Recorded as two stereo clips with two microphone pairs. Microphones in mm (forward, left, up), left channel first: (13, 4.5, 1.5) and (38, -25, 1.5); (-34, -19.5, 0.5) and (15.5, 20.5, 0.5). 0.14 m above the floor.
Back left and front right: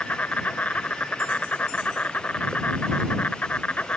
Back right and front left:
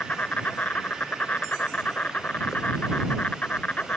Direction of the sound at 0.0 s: 165° left.